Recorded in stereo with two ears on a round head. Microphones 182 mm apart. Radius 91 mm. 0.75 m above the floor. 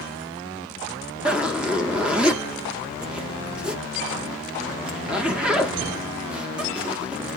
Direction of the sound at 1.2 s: 5° right (ahead or behind).